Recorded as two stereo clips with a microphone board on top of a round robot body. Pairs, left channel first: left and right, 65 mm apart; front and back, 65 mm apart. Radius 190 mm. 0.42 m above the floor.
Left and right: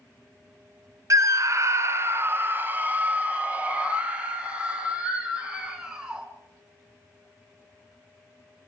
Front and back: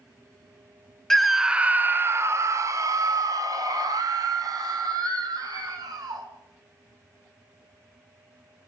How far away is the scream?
About 1.3 m.